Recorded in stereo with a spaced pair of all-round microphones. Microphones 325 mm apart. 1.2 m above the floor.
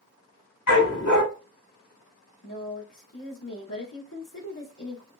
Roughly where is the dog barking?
Left.